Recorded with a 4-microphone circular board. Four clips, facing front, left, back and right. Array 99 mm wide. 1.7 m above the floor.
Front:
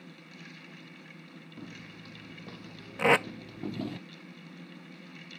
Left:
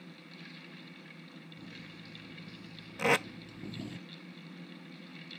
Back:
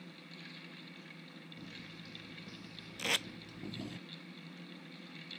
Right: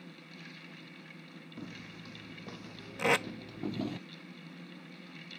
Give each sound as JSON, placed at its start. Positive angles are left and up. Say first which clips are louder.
{"t": 1.6, "sound": "footsteps", "louder": "right 6 dB, front 6 dB", "azimuth_deg": -60}
{"t": 3.0, "sound": "tape being pulled", "louder": "even, front 16 dB", "azimuth_deg": 0}